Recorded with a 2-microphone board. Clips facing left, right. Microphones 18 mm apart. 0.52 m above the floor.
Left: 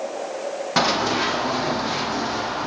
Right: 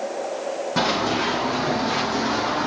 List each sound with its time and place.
0.8 s running footsteps: 35° left (ahead or behind), 1.5 m; by 2.7 s 15° right (ahead or behind), 1.4 m